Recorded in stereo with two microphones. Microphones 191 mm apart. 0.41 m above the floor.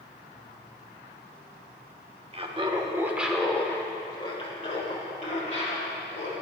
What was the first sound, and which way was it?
Laughter, 30° right (ahead or behind).